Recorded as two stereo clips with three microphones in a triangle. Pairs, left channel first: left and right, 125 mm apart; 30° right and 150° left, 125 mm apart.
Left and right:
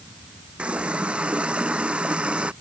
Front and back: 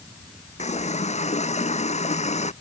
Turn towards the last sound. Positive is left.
turn(degrees=-10)